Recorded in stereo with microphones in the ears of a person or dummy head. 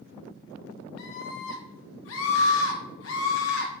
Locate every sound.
1.0 s a scream: 60° left (ahead or behind), 1.9 m; by 3.7 s 70° left (ahead or behind), 1.6 m